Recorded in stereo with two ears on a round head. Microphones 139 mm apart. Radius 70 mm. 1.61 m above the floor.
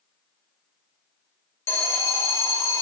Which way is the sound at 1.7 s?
20° left (ahead or behind).